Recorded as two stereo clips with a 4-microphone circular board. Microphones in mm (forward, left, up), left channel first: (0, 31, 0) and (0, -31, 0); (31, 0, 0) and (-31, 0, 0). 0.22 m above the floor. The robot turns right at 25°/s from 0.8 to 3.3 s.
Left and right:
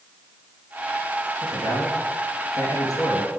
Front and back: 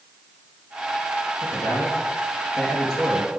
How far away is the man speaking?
About 3.5 m.